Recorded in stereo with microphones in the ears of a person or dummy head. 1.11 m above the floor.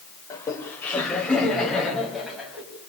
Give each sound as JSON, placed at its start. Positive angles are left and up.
{"t": 0.3, "sound": "laughter", "side_deg": 20, "distance_m": 4.5}